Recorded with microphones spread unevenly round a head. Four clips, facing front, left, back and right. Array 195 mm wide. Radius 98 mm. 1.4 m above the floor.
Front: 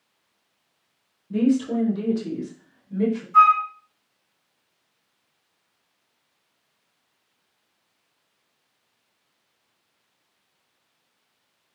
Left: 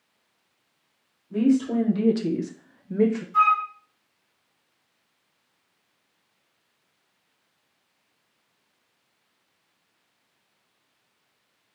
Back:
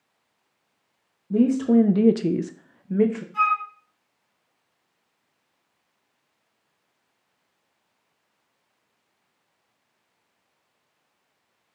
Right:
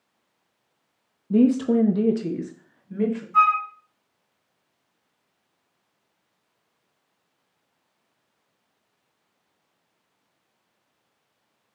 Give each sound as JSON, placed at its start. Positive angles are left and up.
{"t": 1.3, "sound": "a woman speaking", "azimuth_deg": -110, "distance_m": 0.7}
{"t": 3.3, "sound": "a flute", "azimuth_deg": -15, "distance_m": 2.5}